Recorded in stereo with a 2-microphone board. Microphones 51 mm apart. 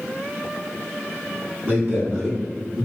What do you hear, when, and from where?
1.6 s a man speaking: 45° right (ahead or behind), 1.5 m; by 2.9 s 15° right (ahead or behind), 1.1 m